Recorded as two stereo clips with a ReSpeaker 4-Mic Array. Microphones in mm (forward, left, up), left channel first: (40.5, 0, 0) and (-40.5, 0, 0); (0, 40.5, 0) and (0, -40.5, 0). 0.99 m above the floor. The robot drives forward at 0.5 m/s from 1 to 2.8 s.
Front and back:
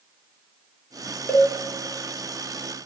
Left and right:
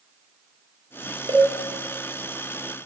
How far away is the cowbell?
About 2.5 m.